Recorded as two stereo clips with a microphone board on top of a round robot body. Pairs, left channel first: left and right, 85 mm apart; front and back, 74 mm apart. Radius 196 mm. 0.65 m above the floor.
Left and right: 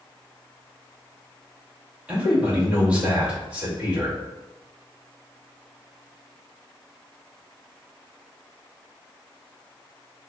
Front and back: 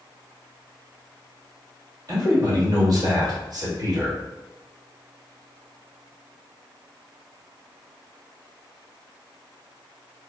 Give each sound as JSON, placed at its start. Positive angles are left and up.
{"t": 2.1, "sound": "a man speaking", "azimuth_deg": -165, "distance_m": 1.7}